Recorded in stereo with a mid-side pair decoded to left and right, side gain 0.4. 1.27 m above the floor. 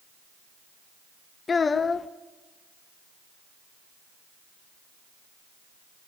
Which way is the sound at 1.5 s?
40° left.